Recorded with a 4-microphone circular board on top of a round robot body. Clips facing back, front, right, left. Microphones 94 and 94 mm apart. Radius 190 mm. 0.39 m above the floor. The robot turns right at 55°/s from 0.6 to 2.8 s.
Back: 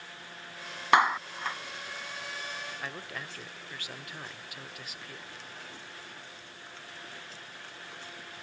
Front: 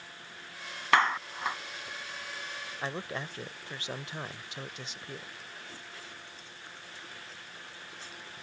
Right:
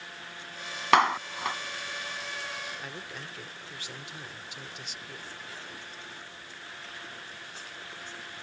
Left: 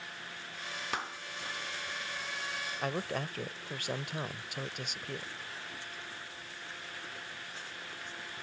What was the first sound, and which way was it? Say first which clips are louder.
A clap: back 2 dB, right 19 dB; 105° right.